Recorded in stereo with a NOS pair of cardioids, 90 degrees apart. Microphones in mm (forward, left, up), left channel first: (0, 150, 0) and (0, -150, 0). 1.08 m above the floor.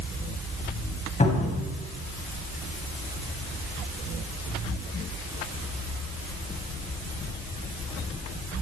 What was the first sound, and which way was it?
A cupboard door, 25° left.